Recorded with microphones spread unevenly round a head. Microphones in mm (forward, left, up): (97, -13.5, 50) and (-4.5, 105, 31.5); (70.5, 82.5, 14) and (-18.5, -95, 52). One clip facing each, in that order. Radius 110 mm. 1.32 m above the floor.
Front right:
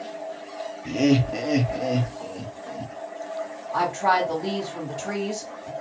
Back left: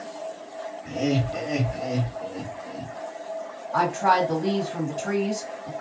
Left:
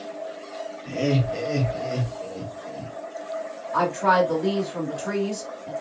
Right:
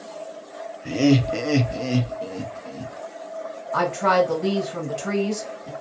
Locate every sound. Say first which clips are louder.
0.8 s laughter: front right 5 dB, right 6 dB; 70° right, 0.7 m; by 2.9 s 155° right, 1.0 m
3.7 s a woman speaking: back left 1 dB, right 1 dB; 155° right, 1.6 m